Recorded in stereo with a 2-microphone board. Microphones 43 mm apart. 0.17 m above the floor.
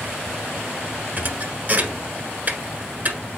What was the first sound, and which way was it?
A thud, 40° right (ahead or behind).